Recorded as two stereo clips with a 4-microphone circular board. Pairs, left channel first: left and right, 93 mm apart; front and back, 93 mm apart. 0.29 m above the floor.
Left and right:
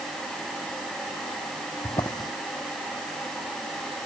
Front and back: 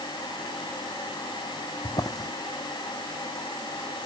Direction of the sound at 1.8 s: 50° left.